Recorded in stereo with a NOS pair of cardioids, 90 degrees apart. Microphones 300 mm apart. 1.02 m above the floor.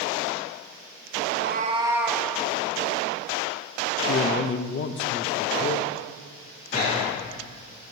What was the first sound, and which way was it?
A cat meowing, 55° right.